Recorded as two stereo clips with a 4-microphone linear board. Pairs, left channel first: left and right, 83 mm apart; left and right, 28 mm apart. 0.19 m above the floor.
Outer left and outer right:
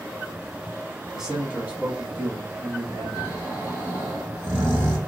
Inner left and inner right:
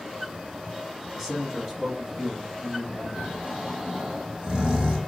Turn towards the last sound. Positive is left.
turn(degrees=-25)  # may be behind; listen again after turning